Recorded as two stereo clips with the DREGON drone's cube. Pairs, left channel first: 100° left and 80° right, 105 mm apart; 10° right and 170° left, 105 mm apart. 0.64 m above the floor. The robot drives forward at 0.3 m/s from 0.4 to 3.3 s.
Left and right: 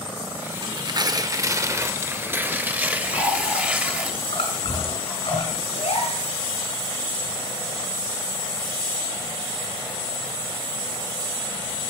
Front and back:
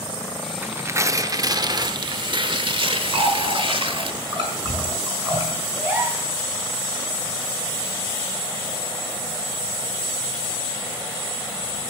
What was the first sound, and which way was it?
Tearing paper, 120° right.